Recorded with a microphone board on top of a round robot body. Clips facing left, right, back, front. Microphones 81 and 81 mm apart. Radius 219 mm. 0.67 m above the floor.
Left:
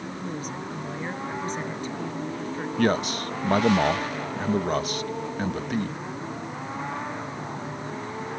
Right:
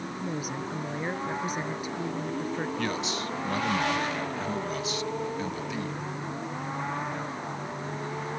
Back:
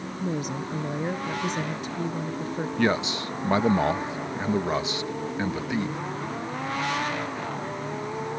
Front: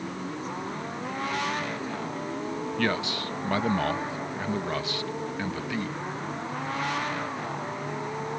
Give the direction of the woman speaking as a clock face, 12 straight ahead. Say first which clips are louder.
Right 1 dB, back 4 dB; 6 o'clock.